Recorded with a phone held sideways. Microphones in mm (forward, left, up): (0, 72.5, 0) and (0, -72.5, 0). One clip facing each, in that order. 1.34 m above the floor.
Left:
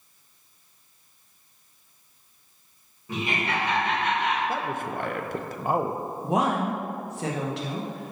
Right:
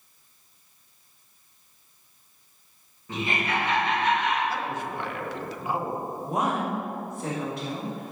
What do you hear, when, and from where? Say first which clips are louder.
3.1 s laughter: even; 10° left (ahead or behind), 2 m; by 4.4 s 70° left (ahead or behind), 2 m
4.5 s a man speaking: left 1 dB; 50° left (ahead or behind), 0.5 m
6.2 s a woman speaking: left 3 dB; 85° left, 1.1 m